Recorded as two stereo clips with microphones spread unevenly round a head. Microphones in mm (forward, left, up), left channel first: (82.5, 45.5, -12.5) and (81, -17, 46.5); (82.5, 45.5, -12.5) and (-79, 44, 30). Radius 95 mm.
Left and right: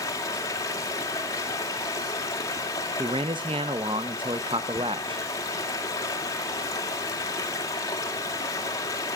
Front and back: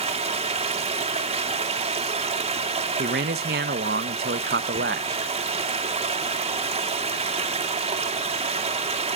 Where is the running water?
130° left, 2.5 m.